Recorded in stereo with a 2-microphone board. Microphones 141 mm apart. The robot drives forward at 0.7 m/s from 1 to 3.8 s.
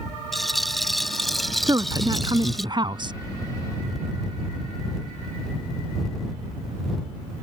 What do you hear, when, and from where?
0.3 s a rattle: centre (ahead or behind)
1.7 s a woman speaking: 25° right (ahead or behind); by 3.1 s 35° right (ahead or behind)